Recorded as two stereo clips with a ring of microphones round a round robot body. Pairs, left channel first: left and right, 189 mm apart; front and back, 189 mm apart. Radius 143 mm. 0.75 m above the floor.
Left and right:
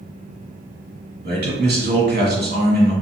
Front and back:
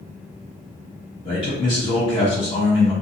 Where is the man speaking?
65° right, 1.8 m.